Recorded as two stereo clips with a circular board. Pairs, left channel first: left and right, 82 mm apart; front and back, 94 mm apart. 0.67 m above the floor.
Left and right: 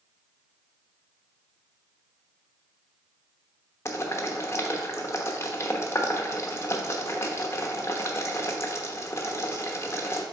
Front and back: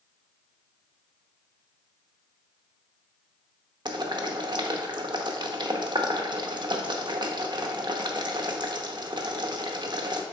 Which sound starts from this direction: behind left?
Boiling, at 3.9 s.